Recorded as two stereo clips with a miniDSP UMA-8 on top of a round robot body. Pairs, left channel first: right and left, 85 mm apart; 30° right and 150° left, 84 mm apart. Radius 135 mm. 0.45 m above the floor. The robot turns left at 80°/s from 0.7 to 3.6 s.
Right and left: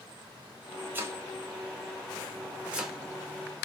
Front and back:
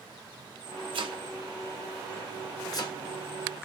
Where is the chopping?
155° left, 1.0 m; by 3.0 s 5° right, 1.0 m.